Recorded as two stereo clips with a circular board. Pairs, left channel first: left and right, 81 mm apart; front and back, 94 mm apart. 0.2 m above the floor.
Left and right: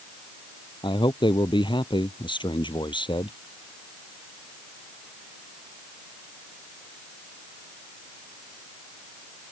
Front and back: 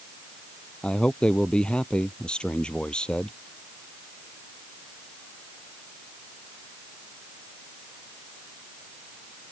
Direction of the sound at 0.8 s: 80° left.